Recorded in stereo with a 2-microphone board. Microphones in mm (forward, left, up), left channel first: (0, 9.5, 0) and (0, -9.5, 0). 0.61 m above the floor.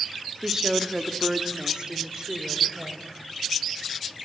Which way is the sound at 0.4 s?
25° right (ahead or behind).